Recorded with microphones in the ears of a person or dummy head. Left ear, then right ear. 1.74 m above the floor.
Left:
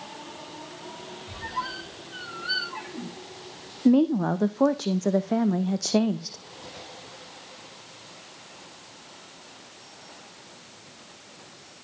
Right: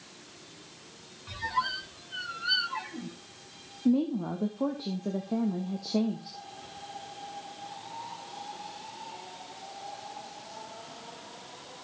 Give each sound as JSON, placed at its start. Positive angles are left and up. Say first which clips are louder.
{"t": 1.3, "sound": "a squeak", "louder": "right 2 dB", "side_deg": -20, "distance_m": 1.0}
{"t": 3.9, "sound": "a woman speaking", "louder": "left 7 dB", "side_deg": 70, "distance_m": 0.6}